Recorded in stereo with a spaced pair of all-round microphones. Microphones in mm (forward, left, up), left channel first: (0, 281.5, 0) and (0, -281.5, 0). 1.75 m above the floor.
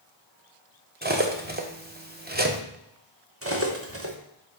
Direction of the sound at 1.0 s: 15° right (ahead or behind).